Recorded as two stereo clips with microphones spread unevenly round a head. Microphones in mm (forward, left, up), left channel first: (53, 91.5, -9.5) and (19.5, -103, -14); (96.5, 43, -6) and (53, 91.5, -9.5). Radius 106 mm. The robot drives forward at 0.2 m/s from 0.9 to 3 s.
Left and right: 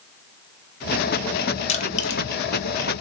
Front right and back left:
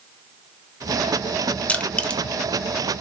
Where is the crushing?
25° left, 0.6 m; by 2.2 s 30° left, 0.5 m.